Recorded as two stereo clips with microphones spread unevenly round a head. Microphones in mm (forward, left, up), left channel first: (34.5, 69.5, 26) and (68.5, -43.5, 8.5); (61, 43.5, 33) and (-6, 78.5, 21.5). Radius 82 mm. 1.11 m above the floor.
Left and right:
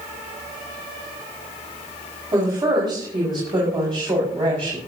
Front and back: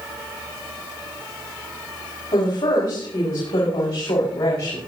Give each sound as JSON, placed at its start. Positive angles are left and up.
{"t": 2.3, "sound": "a woman speaking", "azimuth_deg": -15, "distance_m": 5.5}